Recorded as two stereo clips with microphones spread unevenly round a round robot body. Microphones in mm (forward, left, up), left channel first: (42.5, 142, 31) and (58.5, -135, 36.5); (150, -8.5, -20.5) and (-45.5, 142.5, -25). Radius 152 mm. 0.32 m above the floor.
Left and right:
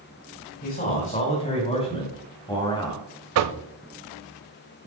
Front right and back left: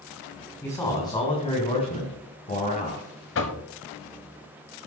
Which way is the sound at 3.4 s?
80° right.